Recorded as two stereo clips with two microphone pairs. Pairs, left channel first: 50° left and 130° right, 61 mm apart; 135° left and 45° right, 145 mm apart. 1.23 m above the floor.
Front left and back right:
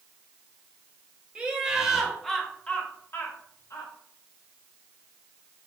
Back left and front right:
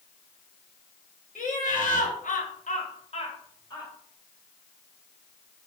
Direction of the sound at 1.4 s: 160° left.